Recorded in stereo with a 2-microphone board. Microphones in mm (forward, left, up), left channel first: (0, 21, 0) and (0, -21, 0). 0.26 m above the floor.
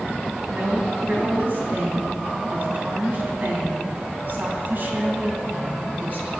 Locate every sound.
0.5 s a woman speaking: 50° right (ahead or behind), 2 m